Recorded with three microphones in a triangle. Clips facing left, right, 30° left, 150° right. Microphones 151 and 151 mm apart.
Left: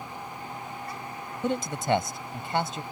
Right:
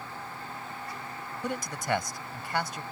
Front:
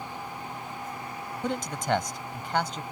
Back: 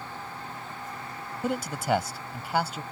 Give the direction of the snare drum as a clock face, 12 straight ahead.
I don't hear a snare drum.